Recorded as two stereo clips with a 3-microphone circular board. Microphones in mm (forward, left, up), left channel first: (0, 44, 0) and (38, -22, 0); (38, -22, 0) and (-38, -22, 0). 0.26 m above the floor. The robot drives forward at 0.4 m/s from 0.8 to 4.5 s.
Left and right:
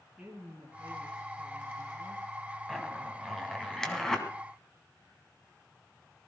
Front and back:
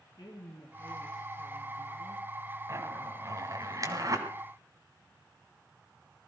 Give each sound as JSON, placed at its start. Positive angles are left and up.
{"t": 0.2, "sound": "a woman speaking", "azimuth_deg": 15, "distance_m": 3.0}
{"t": 2.7, "sound": "a zipper", "azimuth_deg": -150, "distance_m": 2.5}